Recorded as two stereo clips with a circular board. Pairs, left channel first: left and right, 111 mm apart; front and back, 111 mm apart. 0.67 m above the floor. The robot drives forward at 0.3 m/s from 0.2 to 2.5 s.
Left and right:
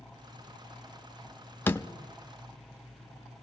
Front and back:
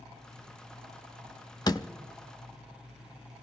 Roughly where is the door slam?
Ahead left.